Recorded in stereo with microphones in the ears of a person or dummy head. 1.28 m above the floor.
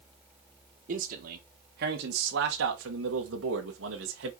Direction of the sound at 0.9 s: 50° right (ahead or behind).